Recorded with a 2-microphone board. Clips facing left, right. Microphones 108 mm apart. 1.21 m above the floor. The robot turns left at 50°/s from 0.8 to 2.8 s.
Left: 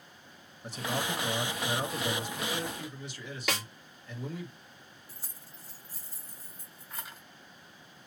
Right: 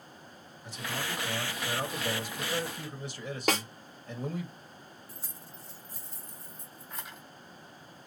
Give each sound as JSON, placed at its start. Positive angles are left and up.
{"t": 0.6, "sound": "a man speaking", "azimuth_deg": 60, "distance_m": 2.0}
{"t": 3.5, "sound": "a snare drum", "side_deg": -40, "distance_m": 1.4}
{"t": 5.1, "sound": "keys jangling", "side_deg": 0, "distance_m": 2.5}